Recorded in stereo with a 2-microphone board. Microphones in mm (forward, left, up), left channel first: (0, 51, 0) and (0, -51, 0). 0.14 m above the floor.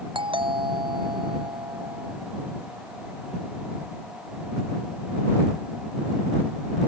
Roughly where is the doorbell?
Right.